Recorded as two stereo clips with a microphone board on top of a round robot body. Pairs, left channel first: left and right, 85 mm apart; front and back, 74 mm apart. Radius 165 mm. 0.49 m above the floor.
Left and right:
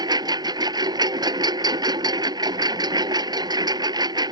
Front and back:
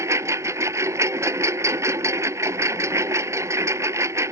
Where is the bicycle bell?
I don't hear a bicycle bell.